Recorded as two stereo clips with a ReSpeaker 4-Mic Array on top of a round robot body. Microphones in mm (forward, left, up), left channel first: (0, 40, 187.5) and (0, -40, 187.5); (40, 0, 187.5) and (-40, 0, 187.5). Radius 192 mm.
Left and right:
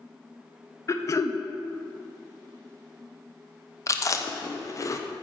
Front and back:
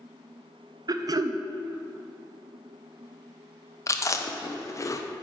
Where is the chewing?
45° left, 0.8 m.